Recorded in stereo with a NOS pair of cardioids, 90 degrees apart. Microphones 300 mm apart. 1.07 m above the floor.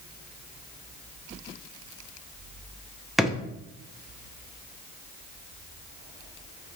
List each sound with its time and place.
3.2 s a drawer: straight ahead, 0.6 m